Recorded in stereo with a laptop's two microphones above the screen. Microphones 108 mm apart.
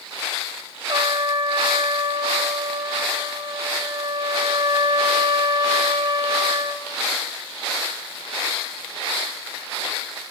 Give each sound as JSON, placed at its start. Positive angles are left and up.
{"t": 0.9, "sound": "a trumpet", "side_deg": -45, "distance_m": 1.3}